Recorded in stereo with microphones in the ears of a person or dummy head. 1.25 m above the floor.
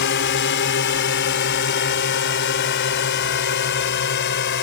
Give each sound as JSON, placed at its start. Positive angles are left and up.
{"t": 0.0, "sound": "a drone", "side_deg": 55}